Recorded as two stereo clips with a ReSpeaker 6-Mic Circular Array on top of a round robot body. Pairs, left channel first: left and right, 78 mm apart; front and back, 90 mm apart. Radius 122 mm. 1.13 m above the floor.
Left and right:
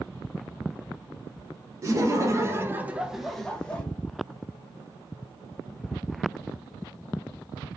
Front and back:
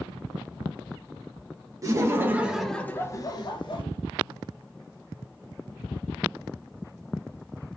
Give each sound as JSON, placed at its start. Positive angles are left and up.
{"t": 1.8, "sound": "laughter", "azimuth_deg": -130, "distance_m": 0.9}